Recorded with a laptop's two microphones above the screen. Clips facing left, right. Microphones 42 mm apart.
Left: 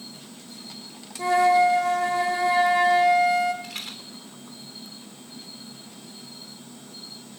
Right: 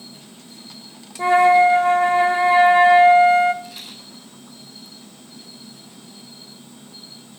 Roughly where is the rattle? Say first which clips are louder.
Left 1 dB; left.